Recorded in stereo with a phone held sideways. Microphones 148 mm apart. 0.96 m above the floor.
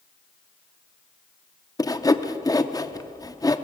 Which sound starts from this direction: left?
Sawing, at 1.8 s.